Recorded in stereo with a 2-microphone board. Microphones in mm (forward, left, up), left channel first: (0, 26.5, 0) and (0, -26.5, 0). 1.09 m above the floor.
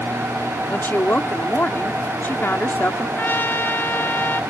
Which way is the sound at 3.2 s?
40° left (ahead or behind).